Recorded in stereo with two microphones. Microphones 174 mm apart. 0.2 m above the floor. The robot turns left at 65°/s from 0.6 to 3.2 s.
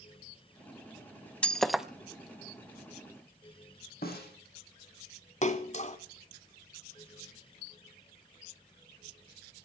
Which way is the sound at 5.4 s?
40° left (ahead or behind).